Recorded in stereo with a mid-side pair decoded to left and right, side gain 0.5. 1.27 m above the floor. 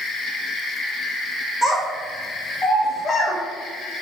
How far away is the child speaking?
About 1.4 m.